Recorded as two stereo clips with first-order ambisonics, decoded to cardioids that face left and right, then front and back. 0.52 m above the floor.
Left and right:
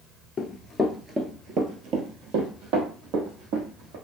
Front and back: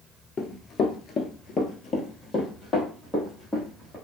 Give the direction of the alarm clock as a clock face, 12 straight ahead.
No alarm clock in this recording.